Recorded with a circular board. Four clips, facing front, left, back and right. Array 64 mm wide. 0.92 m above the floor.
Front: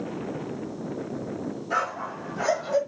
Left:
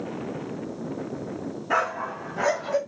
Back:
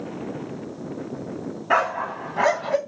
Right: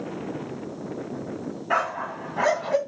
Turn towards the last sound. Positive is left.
turn(degrees=-150)